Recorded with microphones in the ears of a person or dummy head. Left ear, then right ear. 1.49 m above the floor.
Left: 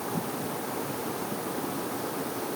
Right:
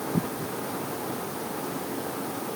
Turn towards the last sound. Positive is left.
No sound to turn to.